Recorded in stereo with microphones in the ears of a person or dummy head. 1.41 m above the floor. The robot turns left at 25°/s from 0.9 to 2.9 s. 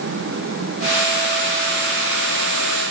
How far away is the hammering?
No hammering in this recording.